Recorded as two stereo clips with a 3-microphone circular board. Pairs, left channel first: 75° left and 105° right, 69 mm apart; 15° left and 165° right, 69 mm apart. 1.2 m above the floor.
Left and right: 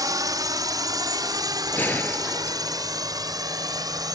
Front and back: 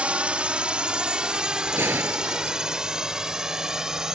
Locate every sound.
0.0 s a drone: 95° right; by 4.2 s 85° right
1.7 s a gunshot: 140° left